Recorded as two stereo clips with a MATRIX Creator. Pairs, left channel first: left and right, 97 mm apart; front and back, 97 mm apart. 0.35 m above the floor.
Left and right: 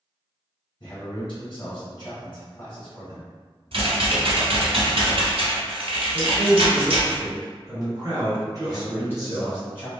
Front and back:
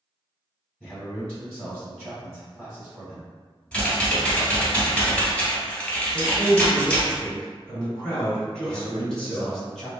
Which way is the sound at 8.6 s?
75° left.